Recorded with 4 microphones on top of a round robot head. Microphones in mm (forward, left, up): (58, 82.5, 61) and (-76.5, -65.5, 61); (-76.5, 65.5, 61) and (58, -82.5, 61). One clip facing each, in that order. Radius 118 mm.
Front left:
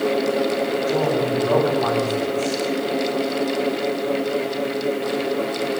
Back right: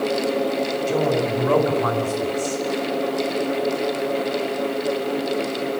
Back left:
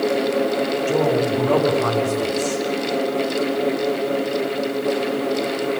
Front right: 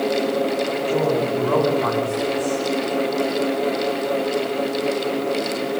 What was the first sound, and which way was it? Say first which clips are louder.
A man speaking: back right 1 dB, back left 1 dB; 165° left.